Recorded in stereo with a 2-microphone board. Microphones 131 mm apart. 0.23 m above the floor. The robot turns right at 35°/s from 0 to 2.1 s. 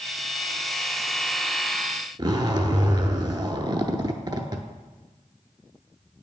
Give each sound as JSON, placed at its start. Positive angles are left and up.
{"t": 2.2, "sound": "a zipper", "side_deg": -35, "distance_m": 0.5}